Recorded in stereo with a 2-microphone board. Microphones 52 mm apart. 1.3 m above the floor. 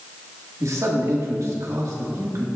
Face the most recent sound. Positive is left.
turn(degrees=-80)